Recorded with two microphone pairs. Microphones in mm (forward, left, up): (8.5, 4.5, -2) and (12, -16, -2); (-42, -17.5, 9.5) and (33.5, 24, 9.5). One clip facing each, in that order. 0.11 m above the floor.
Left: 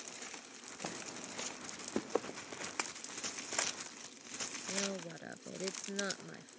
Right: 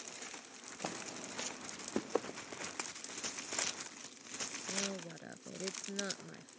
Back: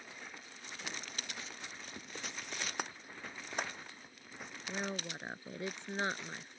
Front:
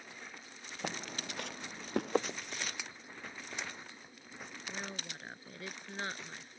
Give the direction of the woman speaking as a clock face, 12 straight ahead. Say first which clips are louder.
Left 2 dB, back 5 dB; 7 o'clock.